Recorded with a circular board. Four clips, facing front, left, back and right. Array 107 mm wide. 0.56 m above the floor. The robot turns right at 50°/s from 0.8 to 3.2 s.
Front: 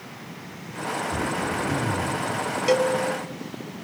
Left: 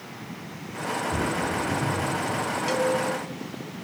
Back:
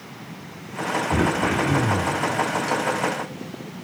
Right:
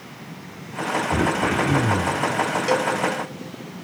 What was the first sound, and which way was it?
Throat clearing, 150° right.